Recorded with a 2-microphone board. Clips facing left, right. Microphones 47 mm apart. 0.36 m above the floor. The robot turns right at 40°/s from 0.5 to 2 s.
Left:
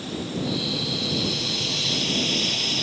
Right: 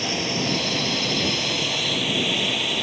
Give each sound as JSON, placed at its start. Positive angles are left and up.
{"t": 0.0, "sound": "a drone", "azimuth_deg": -85}